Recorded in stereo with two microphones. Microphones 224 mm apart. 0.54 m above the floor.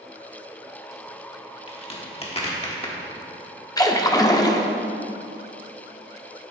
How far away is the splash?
About 0.6 m.